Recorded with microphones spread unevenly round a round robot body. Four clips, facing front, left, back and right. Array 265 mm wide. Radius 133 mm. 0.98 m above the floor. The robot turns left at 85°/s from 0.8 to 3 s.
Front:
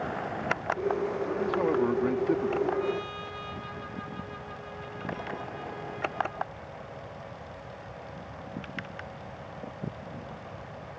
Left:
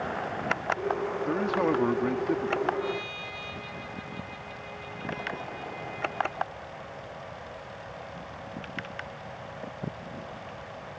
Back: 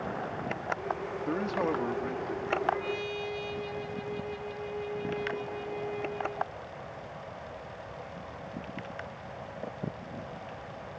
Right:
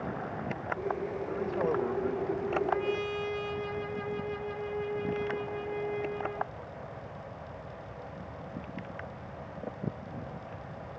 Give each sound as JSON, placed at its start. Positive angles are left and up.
{"t": 1.3, "sound": "a man speaking", "azimuth_deg": 125}
{"t": 2.7, "sound": "a trumpet", "azimuth_deg": -95}